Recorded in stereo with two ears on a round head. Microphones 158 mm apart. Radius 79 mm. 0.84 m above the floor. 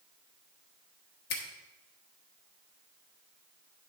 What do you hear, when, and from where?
1.3 s a finger snap: 60° left (ahead or behind), 1.2 m